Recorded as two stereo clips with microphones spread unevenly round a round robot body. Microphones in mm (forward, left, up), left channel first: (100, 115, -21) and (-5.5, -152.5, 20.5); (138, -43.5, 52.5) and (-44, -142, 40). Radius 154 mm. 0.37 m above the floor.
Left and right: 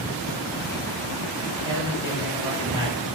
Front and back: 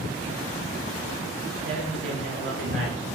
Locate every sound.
1.6 s a man speaking: 170° left, 6 m